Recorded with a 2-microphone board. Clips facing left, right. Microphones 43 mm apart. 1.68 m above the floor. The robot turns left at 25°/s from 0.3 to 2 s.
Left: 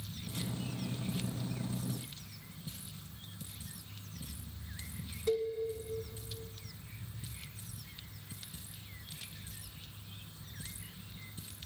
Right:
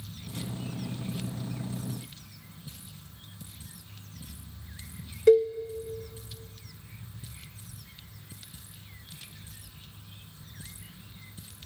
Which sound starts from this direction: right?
A cowbell, at 5.3 s.